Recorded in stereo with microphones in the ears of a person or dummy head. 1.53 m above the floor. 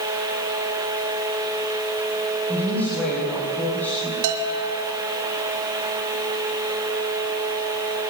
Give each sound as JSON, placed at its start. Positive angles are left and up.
{"t": 2.5, "sound": "a woman speaking", "side_deg": 5, "distance_m": 8.0}
{"t": 4.2, "sound": "a bell", "side_deg": -70, "distance_m": 3.0}